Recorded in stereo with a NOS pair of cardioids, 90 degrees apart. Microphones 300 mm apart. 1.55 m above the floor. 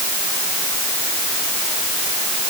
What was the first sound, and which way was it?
Only background noise.